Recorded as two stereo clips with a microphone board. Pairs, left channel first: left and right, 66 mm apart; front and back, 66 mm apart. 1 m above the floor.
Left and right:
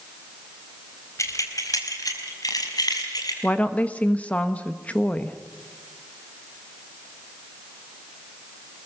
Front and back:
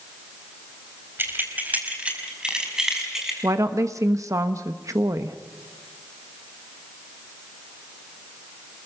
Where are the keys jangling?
125° left, 3.5 m; by 3.3 s 95° left, 5.5 m.